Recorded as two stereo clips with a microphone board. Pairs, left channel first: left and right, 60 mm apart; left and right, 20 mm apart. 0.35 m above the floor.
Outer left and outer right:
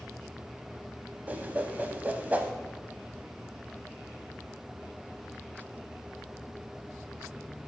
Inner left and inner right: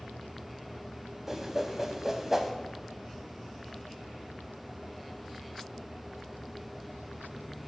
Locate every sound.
1.3 s a whoosh: 25° right (ahead or behind), 0.6 m